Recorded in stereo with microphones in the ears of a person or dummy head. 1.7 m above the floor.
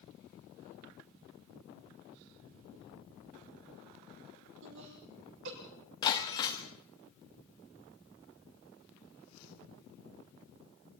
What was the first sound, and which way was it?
Laughter, 65° right (ahead or behind).